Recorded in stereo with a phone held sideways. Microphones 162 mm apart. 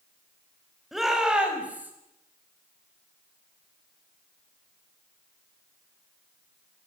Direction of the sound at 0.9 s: Centre (ahead or behind).